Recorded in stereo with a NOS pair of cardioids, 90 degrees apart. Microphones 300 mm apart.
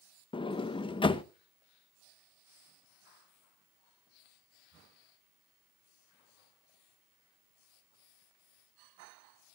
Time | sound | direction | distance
0.3 | a sliding door | 15° left | 0.9 m